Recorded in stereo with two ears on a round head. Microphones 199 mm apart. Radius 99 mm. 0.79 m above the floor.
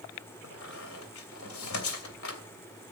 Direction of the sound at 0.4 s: 70° left (ahead or behind).